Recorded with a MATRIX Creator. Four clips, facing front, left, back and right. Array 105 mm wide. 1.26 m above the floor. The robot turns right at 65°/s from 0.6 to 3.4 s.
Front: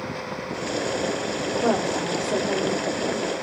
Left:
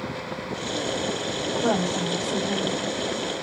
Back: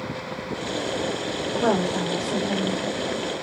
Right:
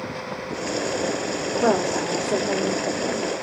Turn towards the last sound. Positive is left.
turn(degrees=-5)